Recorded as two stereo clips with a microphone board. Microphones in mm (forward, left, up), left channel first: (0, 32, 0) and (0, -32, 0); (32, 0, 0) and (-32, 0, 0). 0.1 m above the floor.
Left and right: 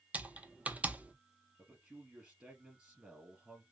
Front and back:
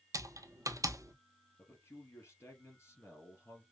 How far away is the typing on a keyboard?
About 0.6 m.